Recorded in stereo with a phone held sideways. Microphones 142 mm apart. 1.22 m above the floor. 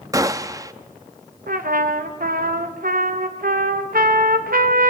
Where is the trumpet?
90° right, 1.1 m.